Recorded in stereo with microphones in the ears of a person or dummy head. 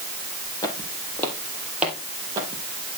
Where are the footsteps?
25° left (ahead or behind), 3 m; by 2.6 s 25° right (ahead or behind), 3 m.